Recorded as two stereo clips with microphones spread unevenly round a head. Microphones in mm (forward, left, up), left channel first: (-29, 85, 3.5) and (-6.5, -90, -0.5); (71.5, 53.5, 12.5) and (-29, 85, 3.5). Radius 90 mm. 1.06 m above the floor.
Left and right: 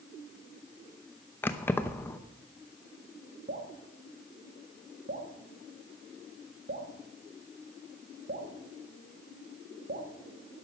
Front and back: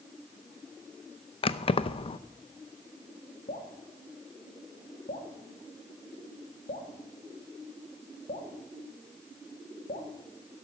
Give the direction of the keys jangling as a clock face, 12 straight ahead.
11 o'clock.